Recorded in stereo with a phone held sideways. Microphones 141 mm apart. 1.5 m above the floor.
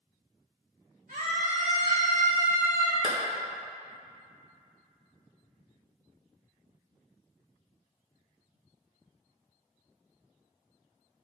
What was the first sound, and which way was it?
A scream, 80° right.